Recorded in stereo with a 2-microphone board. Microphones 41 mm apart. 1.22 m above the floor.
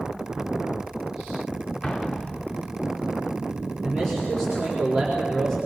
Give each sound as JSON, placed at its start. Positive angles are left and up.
{"t": 1.8, "sound": "an explosion", "side_deg": 25, "distance_m": 0.9}
{"t": 3.8, "sound": "a man speaking", "side_deg": 10, "distance_m": 4.5}